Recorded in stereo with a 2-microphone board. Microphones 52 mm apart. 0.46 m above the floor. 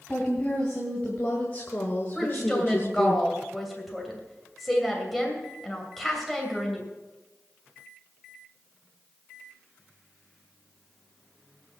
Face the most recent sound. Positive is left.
turn(degrees=0)  # may be behind; listen again after turning